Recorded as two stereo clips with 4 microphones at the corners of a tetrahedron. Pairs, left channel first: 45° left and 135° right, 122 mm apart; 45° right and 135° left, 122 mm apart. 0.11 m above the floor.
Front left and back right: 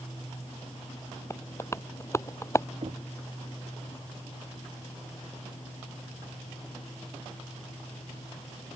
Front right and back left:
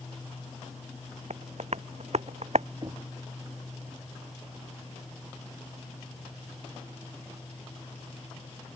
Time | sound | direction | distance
1.3 | tapping | 110° left | ?
2.8 | knocking | 170° right | ?